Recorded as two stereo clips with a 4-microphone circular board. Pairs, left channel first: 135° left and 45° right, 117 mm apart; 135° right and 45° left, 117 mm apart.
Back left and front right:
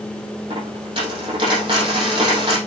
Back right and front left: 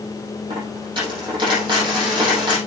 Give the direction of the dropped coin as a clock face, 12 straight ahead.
12 o'clock.